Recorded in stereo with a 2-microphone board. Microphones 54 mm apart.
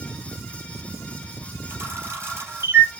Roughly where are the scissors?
I don't hear scissors.